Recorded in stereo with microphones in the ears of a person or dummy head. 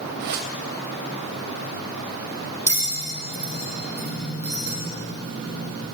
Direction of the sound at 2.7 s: 15° right (ahead or behind).